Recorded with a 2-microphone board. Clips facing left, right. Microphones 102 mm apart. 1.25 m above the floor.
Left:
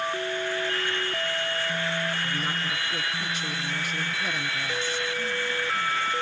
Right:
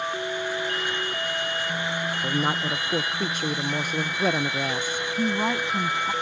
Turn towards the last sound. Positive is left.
turn(degrees=-85)